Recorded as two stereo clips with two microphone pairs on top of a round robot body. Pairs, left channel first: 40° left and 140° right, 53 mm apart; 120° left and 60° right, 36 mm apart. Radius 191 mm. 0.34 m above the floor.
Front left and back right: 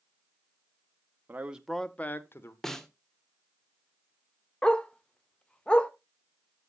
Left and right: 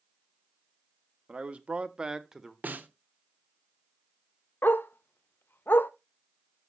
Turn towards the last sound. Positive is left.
turn(degrees=105)